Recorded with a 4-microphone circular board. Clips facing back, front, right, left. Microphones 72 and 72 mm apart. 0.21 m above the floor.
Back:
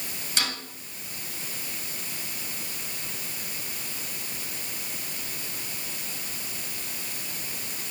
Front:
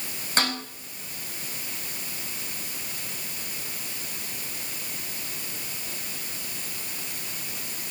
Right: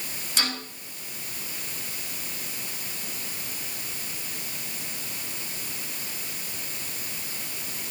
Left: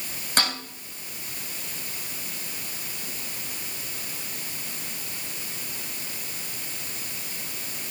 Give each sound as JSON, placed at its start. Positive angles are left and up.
{"t": 0.4, "sound": "a snare drum", "azimuth_deg": 50, "distance_m": 8.0}